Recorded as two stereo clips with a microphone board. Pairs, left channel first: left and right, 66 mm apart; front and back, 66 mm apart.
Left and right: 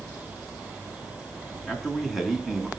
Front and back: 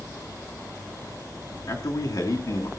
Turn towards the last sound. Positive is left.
turn(degrees=-5)